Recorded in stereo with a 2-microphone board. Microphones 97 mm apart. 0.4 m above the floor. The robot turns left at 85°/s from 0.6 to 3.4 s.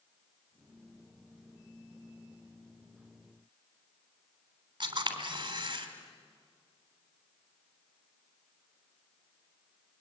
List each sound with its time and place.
4.8 s a camera shutter: 50° right (ahead or behind), 3.5 m